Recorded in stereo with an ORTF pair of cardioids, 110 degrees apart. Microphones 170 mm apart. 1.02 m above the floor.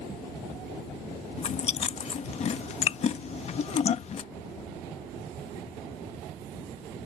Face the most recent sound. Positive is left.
turn(degrees=40)